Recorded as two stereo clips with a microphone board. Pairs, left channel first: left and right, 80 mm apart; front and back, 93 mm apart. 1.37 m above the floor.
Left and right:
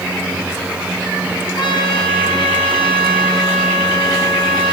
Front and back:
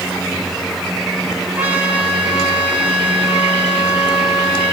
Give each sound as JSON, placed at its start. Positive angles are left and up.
{"t": 1.6, "sound": "a trumpet", "azimuth_deg": 105, "distance_m": 7.0}